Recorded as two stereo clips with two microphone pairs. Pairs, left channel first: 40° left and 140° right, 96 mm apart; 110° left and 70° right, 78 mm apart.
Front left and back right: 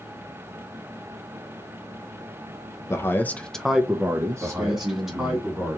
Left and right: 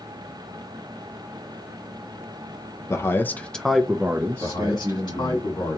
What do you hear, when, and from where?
2.9 s a man speaking: 80° left, 0.7 m; by 5.4 s 100° right, 1.1 m
4.4 s a man speaking: 130° left, 2.5 m